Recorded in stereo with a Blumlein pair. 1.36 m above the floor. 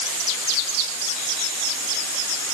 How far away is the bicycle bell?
No bicycle bell in this recording.